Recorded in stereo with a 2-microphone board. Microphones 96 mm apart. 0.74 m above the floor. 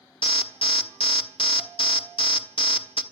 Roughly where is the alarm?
Left.